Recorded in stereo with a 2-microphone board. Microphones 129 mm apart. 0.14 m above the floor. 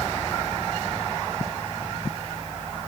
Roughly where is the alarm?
I don't hear an alarm.